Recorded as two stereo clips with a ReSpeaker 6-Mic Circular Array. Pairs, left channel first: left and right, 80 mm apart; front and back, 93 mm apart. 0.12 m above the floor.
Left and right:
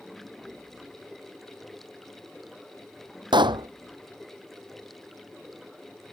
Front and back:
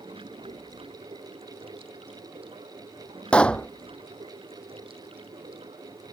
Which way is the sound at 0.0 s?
Straight behind.